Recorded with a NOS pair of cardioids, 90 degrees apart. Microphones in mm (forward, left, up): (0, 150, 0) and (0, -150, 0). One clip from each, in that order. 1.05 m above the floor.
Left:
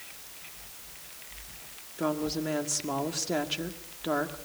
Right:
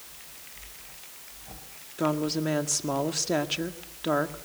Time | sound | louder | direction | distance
2.0 | a woman speaking | right 3 dB | 20° right | 1.8 m